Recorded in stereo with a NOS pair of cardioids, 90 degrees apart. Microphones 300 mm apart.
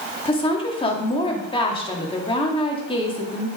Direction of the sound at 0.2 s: 15° left.